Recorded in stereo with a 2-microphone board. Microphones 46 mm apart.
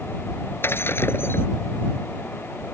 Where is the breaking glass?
60° left (ahead or behind).